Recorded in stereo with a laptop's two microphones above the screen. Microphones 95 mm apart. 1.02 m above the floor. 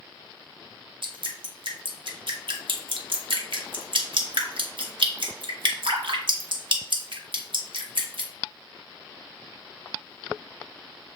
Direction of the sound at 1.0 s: 65° right (ahead or behind).